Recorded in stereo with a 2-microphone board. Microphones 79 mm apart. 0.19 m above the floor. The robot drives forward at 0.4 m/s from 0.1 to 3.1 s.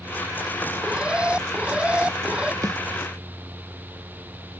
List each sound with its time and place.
0.8 s an alarm: 15° right (ahead or behind)
2.6 s a snare drum: 50° right (ahead or behind)